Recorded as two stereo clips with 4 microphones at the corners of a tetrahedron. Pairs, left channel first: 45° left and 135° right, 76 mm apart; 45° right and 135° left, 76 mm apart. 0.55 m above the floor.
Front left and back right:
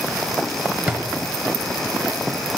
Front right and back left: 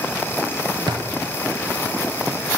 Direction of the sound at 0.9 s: 155° left.